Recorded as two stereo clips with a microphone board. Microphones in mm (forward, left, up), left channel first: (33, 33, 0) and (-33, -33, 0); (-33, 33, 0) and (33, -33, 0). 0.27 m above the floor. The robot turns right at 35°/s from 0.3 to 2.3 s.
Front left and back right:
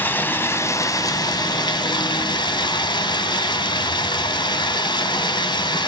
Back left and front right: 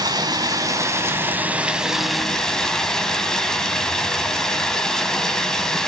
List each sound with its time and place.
0.0 s running water: 20° right, 1.8 m; by 5.9 s 50° left, 1.8 m